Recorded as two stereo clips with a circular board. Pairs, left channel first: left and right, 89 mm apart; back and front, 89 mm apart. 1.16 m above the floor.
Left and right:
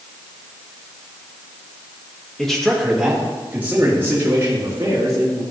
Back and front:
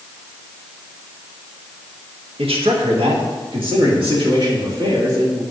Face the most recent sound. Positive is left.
turn(degrees=-35)